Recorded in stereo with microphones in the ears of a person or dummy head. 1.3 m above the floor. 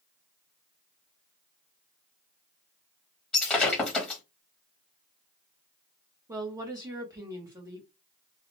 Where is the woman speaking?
20° right (ahead or behind), 0.9 m.